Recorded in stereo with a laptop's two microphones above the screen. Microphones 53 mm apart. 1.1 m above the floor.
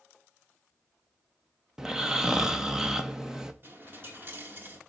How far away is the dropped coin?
About 1.2 m.